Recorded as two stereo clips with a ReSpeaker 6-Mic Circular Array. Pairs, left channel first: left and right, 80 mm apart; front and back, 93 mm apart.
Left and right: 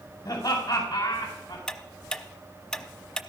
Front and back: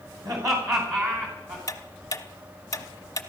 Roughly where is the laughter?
Behind left.